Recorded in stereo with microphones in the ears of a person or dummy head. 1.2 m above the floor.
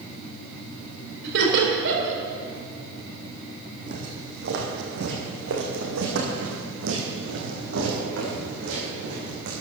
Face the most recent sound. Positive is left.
turn(degrees=-65)  # may be behind; listen again after turning